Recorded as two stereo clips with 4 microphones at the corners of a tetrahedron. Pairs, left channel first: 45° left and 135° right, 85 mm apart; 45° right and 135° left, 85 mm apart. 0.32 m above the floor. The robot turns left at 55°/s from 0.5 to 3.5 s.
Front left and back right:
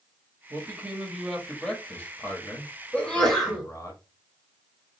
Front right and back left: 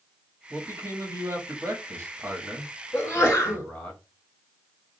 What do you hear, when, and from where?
0.5 s a man speaking: 175° right, 1.2 m; by 3.9 s 20° left, 1.2 m
2.9 s a sneeze: 20° right, 1.6 m; by 3.7 s 50° right, 1.6 m